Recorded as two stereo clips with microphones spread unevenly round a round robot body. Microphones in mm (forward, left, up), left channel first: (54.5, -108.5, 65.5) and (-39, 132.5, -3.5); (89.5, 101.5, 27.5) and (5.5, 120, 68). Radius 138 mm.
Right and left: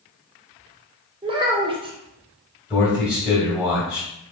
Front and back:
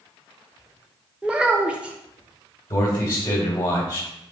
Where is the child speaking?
65° left, 0.6 m.